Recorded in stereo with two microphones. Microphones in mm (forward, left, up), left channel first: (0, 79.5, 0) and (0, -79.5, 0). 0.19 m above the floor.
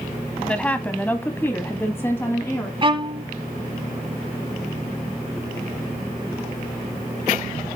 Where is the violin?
30° right (ahead or behind), 0.9 m.